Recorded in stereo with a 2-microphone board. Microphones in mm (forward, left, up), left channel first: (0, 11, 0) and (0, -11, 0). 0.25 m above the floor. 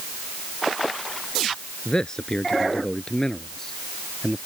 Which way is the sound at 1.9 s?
35° left (ahead or behind).